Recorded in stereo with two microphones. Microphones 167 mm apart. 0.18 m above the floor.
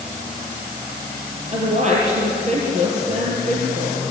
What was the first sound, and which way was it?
A woman speaking, 45° right (ahead or behind).